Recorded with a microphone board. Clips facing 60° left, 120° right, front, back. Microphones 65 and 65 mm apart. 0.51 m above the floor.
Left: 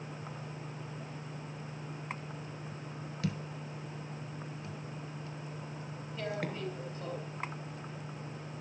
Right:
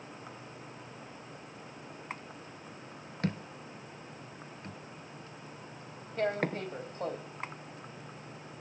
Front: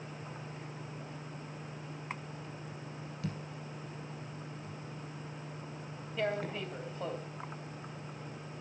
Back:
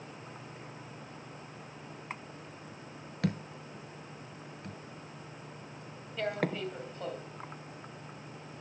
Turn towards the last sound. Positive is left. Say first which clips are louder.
# right 6 dB, back 1 dB
turn(degrees=-85)